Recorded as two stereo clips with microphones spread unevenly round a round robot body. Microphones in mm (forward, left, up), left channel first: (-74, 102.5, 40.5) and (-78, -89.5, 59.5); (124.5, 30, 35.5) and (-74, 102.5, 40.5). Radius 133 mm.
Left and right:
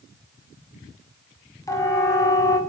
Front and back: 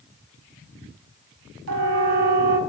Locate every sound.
1.7 s a siren: 160° left, 6.5 m